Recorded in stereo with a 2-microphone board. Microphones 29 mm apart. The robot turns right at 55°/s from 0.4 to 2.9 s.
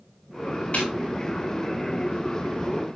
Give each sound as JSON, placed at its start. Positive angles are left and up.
{"t": 0.7, "sound": "a snare drum", "side_deg": 45, "distance_m": 7.0}